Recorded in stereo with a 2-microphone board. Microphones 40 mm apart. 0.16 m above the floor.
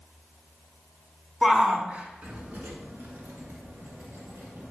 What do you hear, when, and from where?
1.4 s a shout: 10° right (ahead or behind), 1.3 m; by 4.7 s 55° right (ahead or behind), 3.5 m